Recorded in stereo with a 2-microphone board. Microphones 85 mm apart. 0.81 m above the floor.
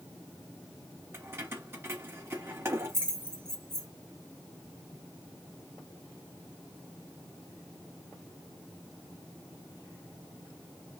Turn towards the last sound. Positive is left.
turn(degrees=-30)  # may be behind; listen again after turning